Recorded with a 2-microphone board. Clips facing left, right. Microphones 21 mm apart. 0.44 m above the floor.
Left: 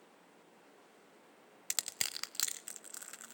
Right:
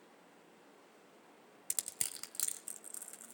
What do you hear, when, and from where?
1.7 s crushing: 35° left (ahead or behind), 0.7 m